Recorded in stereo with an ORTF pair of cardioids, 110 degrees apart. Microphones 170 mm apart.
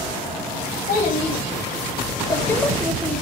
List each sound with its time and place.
0.9 s a child speaking: 55° left, 1.3 m; by 3.2 s 15° right, 0.8 m